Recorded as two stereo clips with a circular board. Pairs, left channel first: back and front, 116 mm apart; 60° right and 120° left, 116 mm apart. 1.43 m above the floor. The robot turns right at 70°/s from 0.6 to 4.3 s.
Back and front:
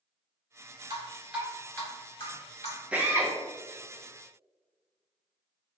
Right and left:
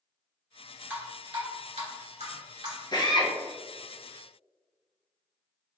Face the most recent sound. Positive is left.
turn(degrees=25)